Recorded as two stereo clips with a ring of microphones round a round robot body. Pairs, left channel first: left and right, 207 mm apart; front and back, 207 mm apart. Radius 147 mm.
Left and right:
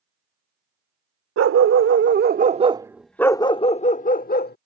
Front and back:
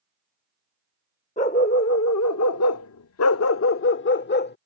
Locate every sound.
1.4 s a dog barking: 70° right; by 4.6 s 45° left